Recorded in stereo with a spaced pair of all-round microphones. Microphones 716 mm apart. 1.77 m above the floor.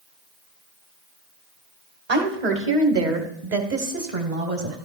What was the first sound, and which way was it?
A woman speaking, 60° right (ahead or behind).